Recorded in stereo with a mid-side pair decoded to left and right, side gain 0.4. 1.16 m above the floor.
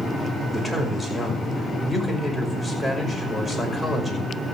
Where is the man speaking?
5° right, 5.5 m.